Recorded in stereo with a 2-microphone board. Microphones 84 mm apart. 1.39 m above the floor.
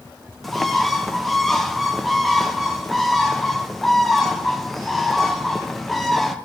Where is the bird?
Centre (ahead or behind), 0.6 m.